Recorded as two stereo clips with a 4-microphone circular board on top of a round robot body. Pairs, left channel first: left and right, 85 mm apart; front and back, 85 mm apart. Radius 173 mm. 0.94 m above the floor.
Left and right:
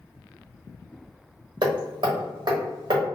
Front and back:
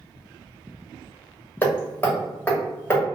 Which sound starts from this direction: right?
Hammering, at 1.6 s.